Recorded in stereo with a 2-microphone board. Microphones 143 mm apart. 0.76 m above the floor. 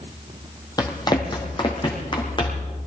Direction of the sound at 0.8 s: 25° left (ahead or behind).